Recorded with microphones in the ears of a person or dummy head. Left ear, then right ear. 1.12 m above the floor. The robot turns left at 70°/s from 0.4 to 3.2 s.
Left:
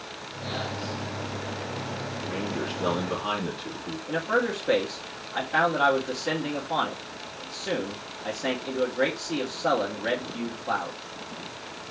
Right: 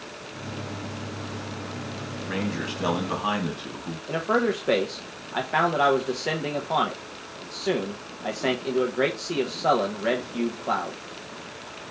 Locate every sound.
2.2 s a man speaking: 55° right, 2.5 m; by 4.0 s 125° right, 2.5 m
4.1 s a man speaking: 20° right (ahead or behind), 0.8 m